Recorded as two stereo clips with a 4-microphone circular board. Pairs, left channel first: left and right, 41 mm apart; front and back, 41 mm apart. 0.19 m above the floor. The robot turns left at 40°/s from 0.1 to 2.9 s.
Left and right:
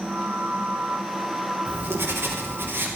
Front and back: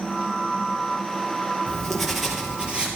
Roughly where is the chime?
No chime in this recording.